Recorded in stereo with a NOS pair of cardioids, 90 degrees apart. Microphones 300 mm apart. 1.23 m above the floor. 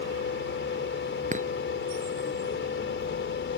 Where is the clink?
25° right.